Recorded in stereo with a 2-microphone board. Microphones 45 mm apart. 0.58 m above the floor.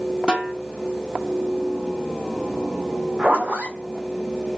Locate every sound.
0.3 s a snare drum: 15° right (ahead or behind), 1.0 m
3.2 s a zipper: 30° right (ahead or behind), 1.9 m